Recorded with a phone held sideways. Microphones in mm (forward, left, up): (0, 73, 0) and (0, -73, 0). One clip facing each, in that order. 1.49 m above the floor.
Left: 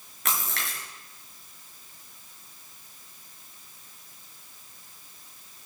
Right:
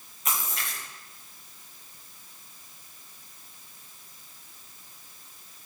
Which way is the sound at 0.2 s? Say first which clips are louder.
Left 1 dB; 75° left (ahead or behind).